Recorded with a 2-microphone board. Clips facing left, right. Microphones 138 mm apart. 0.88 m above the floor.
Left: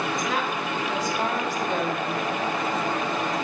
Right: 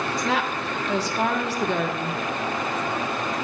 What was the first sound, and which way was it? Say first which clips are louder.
A woman speaking: right 2 dB; 75° right (ahead or behind).